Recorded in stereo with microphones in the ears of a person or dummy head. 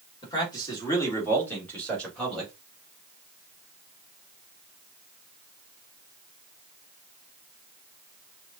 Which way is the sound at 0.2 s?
25° left (ahead or behind).